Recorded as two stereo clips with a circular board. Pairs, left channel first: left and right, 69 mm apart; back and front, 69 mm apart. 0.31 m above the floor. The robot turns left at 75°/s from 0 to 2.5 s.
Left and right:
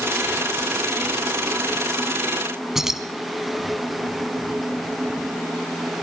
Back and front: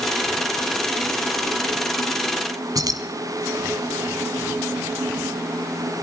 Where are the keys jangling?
5° right, 2 m.